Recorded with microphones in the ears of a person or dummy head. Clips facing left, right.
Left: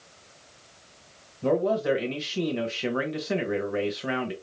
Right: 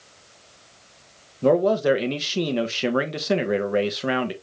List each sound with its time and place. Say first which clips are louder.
1.4 s a man speaking: right 5 dB; 60° right (ahead or behind), 0.9 m